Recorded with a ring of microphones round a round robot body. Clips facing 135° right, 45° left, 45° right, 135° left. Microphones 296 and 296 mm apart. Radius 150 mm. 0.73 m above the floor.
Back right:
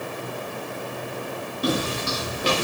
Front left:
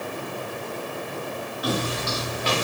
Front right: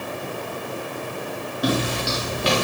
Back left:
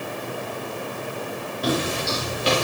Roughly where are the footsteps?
Right.